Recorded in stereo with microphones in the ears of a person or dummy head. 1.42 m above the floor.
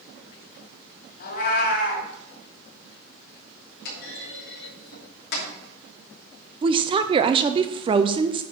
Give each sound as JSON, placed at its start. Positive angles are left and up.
{"t": 1.2, "sound": "a cat meowing", "side_deg": 55, "distance_m": 2.5}
{"t": 3.9, "sound": "a clunk", "side_deg": 60, "distance_m": 3.0}
{"t": 6.6, "sound": "a woman speaking", "side_deg": -20, "distance_m": 0.6}